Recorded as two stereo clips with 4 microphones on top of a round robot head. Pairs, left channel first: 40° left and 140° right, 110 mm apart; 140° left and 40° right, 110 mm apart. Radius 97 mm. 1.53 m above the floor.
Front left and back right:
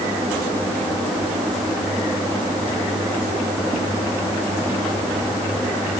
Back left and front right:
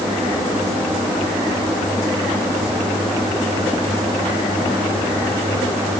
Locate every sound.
Only background noise.